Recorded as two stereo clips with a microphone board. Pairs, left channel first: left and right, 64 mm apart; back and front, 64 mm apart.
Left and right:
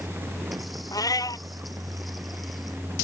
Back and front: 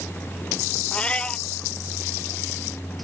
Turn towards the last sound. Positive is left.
turn(degrees=110)